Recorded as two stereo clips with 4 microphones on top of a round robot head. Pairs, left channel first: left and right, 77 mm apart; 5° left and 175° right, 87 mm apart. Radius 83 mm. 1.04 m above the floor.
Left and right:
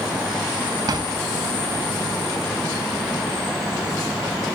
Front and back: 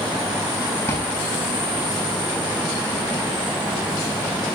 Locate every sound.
0.9 s a drawer: 60° right, 6.5 m